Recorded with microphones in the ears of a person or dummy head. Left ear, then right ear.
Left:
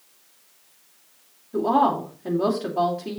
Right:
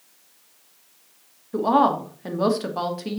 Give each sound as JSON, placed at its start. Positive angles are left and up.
{"t": 1.5, "sound": "a woman speaking", "side_deg": -60, "distance_m": 2.5}